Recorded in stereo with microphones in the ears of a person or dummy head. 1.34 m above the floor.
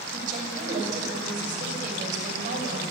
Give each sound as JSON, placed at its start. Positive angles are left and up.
{"t": 0.1, "sound": "a woman speaking", "side_deg": -55, "distance_m": 6.0}